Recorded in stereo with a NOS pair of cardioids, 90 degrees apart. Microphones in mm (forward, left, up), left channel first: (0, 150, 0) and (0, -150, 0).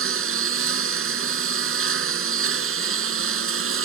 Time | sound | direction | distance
0.0 | a lawn mower | 50° right | ?